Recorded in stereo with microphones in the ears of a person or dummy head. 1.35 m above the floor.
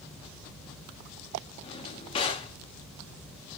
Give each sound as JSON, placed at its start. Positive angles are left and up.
{"t": 1.6, "sound": "a drawer", "side_deg": 25, "distance_m": 1.6}